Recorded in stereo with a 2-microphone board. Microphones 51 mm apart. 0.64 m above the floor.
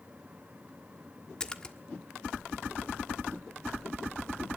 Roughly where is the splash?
Centre.